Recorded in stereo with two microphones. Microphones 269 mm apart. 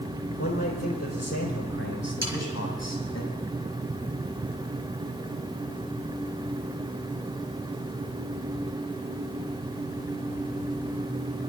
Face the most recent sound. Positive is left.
turn(degrees=-75)  # may be behind; listen again after turning